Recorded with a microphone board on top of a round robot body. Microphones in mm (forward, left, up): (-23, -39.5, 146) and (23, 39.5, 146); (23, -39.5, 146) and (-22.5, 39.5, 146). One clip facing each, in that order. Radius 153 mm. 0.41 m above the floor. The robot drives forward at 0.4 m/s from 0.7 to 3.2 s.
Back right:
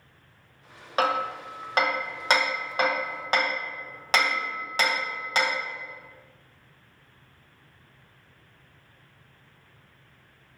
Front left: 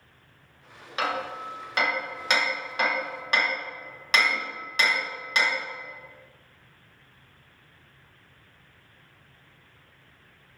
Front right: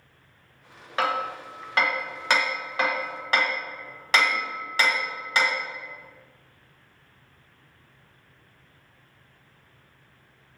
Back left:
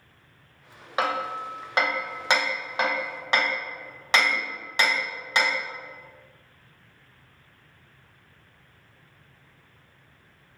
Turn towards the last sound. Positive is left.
turn(degrees=-175)